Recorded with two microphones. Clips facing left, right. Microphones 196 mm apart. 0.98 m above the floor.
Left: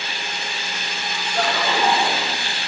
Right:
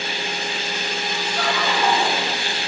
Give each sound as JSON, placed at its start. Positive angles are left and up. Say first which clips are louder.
{"t": 1.4, "sound": "laughter", "louder": "left 2 dB", "side_deg": 50, "distance_m": 1.1}